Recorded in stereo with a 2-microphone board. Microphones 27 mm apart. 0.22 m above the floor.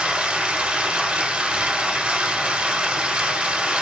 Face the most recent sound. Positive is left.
turn(degrees=-50)  # may be behind; listen again after turning